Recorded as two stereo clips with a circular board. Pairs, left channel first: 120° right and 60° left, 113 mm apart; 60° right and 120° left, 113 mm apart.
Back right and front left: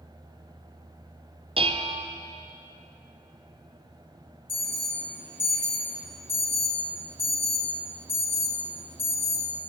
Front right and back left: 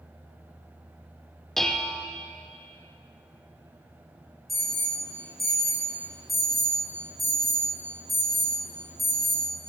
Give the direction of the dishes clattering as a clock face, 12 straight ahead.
11 o'clock.